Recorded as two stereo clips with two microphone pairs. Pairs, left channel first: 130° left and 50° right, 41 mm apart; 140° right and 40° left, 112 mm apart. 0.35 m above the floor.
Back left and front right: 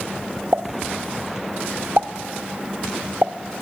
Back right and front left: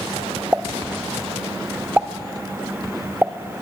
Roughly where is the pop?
Ahead right.